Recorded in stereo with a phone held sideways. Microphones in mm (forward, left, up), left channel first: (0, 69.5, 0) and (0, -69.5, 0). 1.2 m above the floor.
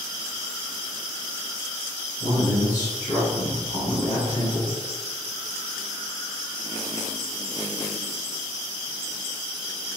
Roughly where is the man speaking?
Left.